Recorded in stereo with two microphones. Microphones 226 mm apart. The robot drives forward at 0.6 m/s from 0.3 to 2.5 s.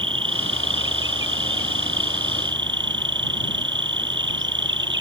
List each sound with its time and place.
0.0 s an insect: 60° right (ahead or behind); by 5.0 s 55° right (ahead or behind)